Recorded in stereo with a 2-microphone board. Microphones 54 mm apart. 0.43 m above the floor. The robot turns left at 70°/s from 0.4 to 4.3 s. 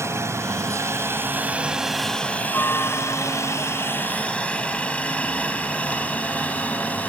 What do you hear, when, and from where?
0.0 s a helicopter: 60° right (ahead or behind); by 7.1 s 30° left (ahead or behind)